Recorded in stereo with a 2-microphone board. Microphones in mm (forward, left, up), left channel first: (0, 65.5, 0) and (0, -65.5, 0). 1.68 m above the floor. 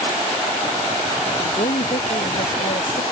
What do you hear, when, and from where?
1.4 s a woman speaking: 85° left